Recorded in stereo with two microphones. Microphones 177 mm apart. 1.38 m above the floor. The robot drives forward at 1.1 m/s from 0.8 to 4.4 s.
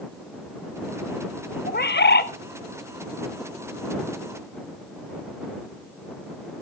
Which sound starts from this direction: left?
A bird, at 1.7 s.